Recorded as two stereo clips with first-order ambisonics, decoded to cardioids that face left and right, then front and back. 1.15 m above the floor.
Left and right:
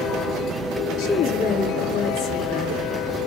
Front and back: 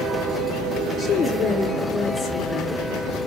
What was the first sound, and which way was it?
A woman speaking, 70° left.